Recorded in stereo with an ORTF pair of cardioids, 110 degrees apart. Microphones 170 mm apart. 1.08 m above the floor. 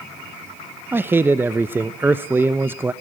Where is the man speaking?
15° right, 0.7 m.